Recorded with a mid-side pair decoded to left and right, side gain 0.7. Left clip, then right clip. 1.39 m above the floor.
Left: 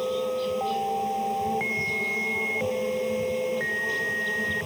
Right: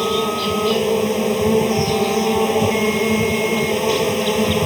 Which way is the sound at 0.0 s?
55° right.